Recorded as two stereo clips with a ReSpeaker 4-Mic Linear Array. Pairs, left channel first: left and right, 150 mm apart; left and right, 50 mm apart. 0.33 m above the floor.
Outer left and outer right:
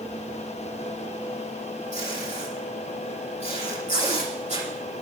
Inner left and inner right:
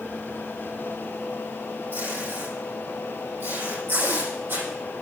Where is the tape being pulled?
50° right (ahead or behind), 9.5 m.